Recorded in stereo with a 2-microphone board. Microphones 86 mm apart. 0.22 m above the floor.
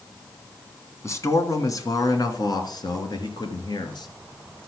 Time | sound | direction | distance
1.0 | a man speaking | 40° left (ahead or behind) | 1.6 m